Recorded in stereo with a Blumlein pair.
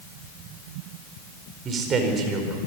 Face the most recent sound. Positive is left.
turn(degrees=-25)